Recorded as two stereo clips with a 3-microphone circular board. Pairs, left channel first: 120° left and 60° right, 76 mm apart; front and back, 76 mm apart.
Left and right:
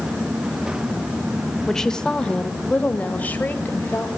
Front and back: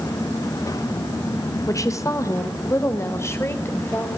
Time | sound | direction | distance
1.7 | a woman speaking | 35° left | 2 m